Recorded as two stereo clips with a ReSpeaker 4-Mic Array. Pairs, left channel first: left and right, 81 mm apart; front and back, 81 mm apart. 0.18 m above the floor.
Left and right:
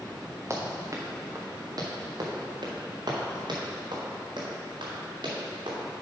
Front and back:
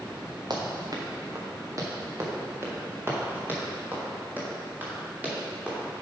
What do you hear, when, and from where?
0.5 s running footsteps: 145° right, 1.7 m; by 5.8 s 105° right, 4 m